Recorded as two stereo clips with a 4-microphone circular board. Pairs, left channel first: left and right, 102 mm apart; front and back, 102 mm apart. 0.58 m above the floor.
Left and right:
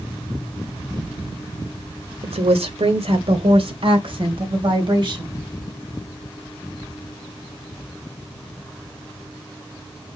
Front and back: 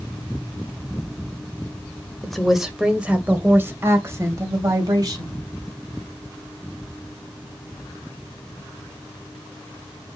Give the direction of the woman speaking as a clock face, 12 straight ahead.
3 o'clock.